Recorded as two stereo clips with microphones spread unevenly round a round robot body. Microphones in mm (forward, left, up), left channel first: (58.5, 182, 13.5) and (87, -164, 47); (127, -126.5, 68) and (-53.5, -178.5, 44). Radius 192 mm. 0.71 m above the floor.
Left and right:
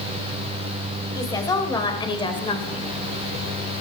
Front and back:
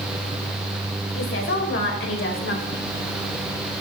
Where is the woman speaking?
15° left, 3.5 m; by 3.0 s 20° left, 2.5 m.